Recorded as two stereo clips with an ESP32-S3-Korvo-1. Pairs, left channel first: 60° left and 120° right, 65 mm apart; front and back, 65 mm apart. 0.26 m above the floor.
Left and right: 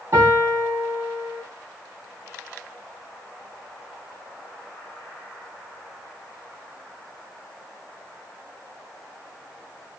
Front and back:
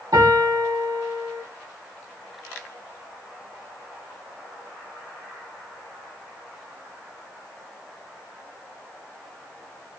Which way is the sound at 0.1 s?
170° right.